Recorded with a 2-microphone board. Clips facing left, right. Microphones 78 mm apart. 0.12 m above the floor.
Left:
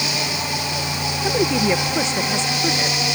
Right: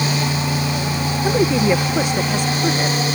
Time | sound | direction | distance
1.2 | a woman speaking | 10° right (ahead or behind) | ?